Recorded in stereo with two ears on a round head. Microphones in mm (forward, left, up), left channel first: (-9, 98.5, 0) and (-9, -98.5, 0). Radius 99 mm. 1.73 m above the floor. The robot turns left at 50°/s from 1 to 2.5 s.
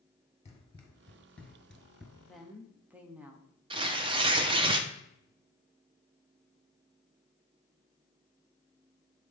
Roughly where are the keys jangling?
No keys jangling in this recording.